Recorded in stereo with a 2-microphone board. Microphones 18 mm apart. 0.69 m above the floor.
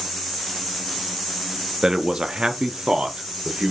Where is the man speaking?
30° right (ahead or behind), 0.7 m; by 3.7 s 70° right (ahead or behind), 1.6 m.